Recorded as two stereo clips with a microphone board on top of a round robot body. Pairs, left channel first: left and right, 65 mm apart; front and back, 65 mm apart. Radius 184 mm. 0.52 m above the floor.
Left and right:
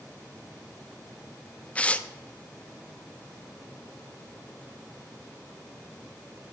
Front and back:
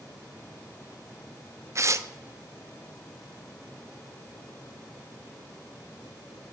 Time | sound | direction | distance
1.8 | tearing paper | 155° left | 0.8 m